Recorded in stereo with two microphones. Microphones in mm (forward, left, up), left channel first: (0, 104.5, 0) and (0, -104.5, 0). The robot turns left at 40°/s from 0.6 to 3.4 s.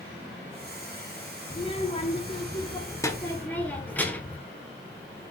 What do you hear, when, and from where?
1.5 s a child speaking: 30° left (ahead or behind), 0.8 m; by 4.4 s 10° left (ahead or behind), 0.8 m